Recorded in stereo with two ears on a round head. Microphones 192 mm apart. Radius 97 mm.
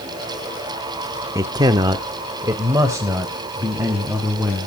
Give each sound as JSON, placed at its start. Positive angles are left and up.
{"t": 1.4, "sound": "a man speaking", "side_deg": -15, "distance_m": 0.7}